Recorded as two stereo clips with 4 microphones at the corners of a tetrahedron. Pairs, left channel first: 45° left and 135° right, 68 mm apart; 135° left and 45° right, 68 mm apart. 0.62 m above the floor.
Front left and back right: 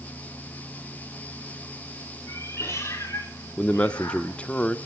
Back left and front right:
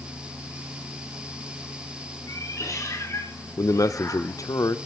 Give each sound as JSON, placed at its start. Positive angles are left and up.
{"t": 2.3, "sound": "a cat meowing", "azimuth_deg": 100, "distance_m": 5.0}
{"t": 3.6, "sound": "a man speaking", "azimuth_deg": 115, "distance_m": 1.0}